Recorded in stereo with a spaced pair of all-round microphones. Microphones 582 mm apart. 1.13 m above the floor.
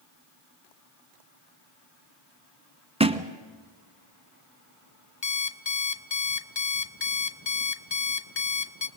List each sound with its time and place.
3.0 s a thud: 10° right (ahead or behind), 1.1 m
5.2 s an alarm clock: 50° left (ahead or behind), 0.9 m